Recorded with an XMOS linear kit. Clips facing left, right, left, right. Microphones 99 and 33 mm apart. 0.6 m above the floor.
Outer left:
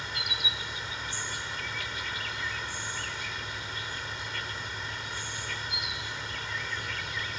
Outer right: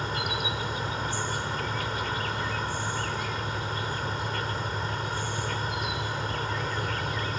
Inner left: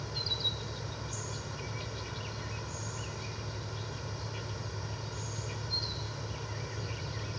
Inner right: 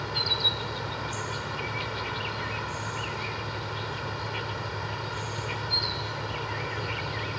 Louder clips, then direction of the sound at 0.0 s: Outer right 7 dB, inner right 8 dB; 50° right (ahead or behind).